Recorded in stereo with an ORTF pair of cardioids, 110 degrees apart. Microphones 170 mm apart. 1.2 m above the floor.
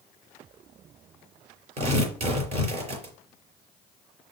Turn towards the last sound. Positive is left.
turn(degrees=-40)